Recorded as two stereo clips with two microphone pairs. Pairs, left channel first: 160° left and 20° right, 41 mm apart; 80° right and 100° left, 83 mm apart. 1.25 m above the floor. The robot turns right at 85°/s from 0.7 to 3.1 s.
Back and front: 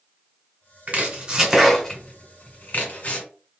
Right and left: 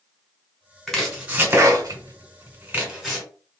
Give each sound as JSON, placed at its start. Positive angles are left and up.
{"t": 0.9, "sound": "chopping", "azimuth_deg": 0, "distance_m": 1.2}